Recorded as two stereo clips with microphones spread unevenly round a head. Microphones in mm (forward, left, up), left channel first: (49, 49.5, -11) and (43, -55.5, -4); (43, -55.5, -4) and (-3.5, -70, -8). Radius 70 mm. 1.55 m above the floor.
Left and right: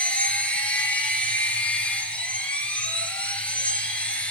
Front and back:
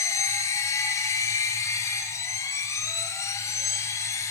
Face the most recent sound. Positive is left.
turn(degrees=10)